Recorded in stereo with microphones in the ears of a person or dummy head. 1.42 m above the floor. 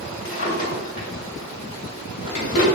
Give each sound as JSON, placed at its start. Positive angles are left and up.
{"t": 0.2, "sound": "a drawer", "side_deg": 50, "distance_m": 1.6}